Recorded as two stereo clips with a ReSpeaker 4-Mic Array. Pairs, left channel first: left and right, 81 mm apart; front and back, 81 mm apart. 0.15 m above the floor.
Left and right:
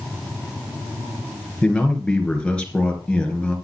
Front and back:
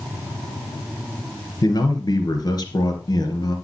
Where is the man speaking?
15° left, 2.5 m.